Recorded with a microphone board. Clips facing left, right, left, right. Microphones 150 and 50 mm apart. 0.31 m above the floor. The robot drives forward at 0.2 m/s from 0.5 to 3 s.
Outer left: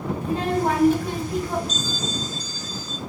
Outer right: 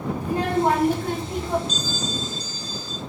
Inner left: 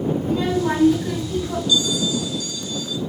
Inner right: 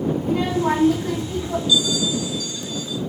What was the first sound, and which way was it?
A child speaking, 60° right (ahead or behind).